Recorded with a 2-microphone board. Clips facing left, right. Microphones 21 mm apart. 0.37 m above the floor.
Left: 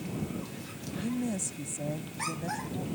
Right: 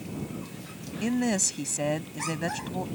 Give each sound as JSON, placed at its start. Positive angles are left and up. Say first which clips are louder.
{"t": 1.0, "sound": "a woman speaking", "louder": "right 7 dB", "side_deg": -65}